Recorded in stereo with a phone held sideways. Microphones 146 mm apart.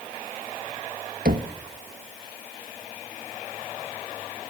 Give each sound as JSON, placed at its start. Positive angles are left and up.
{"t": 1.2, "sound": "knocking", "side_deg": -85, "distance_m": 1.5}